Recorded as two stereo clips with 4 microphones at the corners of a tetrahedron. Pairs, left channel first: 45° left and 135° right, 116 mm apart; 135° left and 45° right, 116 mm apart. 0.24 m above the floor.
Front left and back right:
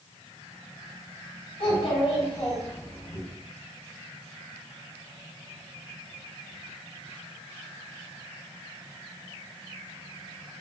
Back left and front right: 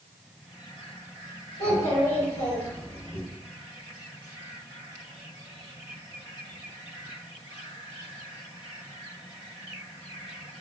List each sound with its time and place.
1.6 s a child speaking: 70° left, 1.9 m